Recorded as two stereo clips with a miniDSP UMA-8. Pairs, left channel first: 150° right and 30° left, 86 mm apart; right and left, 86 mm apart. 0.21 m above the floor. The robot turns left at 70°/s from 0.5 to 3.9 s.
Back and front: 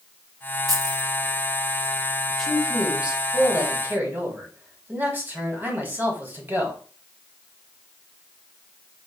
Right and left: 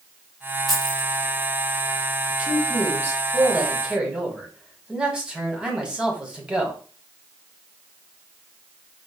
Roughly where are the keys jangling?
Ahead.